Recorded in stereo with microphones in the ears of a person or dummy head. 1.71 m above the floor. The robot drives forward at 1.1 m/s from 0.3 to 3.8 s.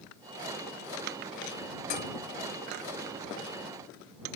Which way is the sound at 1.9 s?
45° left (ahead or behind).